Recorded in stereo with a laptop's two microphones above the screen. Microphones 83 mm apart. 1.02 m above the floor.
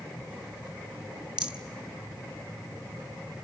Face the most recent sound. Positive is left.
turn(degrees=-15)  # may be behind; listen again after turning